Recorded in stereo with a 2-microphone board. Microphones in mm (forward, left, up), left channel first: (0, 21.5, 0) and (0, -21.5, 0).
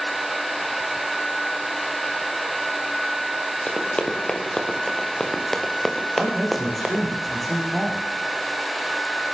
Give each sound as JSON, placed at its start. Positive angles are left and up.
{"t": 3.7, "sound": "running footsteps", "side_deg": 25, "distance_m": 5.0}
{"t": 6.2, "sound": "a man speaking", "side_deg": 5, "distance_m": 8.0}